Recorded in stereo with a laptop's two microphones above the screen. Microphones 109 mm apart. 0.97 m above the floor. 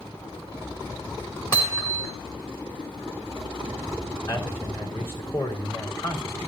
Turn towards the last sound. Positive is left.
turn(degrees=25)  # may be behind; listen again after turning